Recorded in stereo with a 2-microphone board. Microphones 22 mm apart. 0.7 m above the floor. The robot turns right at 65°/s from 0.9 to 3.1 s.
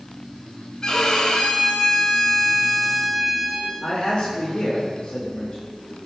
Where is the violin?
40° left, 1.8 m; by 3.7 s straight behind, 1.8 m.